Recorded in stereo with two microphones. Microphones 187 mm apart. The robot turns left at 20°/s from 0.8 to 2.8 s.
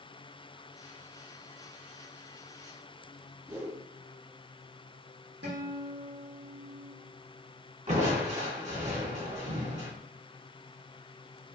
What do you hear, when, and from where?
3.5 s a whoosh: 15° right (ahead or behind), 3 m
5.4 s a guitar: 70° right (ahead or behind), 3.5 m
7.9 s crushing: 40° right (ahead or behind), 3.5 m